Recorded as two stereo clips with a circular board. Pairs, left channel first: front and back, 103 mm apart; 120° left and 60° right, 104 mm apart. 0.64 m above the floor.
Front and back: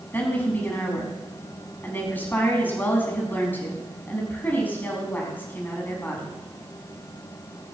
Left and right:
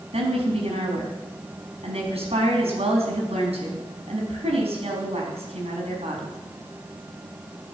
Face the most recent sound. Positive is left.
turn(degrees=-75)